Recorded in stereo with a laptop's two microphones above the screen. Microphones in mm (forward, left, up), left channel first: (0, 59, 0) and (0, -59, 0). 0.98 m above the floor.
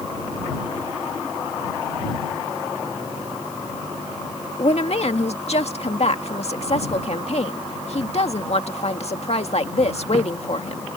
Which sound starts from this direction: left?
A woman speaking, at 4.6 s.